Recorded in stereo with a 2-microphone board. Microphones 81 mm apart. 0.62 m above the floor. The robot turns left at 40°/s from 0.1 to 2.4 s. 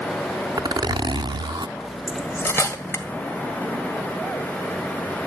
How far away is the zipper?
About 0.6 m.